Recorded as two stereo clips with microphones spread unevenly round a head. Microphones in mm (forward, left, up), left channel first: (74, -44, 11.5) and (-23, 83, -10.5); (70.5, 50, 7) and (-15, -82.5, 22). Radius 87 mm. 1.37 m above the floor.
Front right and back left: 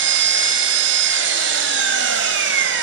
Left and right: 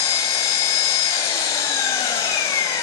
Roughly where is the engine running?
Behind left.